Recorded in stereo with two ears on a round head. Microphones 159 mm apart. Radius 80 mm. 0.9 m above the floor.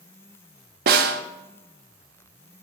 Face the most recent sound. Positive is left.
turn(degrees=-60)  # may be behind; listen again after turning